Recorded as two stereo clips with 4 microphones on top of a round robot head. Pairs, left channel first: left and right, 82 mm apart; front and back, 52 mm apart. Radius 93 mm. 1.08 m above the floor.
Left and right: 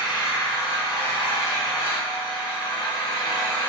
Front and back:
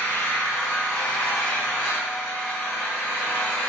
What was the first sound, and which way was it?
An engine running, 55° left.